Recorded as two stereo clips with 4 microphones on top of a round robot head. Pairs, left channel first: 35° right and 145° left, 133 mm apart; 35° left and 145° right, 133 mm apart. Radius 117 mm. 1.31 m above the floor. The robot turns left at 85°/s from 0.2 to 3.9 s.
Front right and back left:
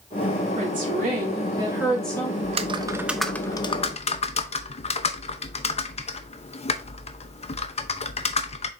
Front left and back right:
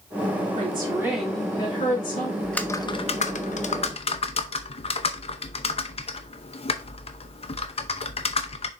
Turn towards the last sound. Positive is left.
turn(degrees=0)